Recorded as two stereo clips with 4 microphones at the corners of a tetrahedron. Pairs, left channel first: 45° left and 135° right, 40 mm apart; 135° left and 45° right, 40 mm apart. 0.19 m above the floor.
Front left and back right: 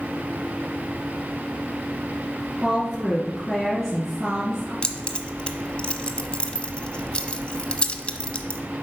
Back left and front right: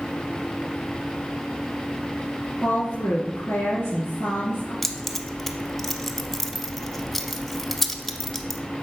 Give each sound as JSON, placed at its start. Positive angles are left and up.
{"t": 2.6, "sound": "a woman speaking", "azimuth_deg": 140, "distance_m": 3.0}
{"t": 4.8, "sound": "keys jangling", "azimuth_deg": 50, "distance_m": 0.7}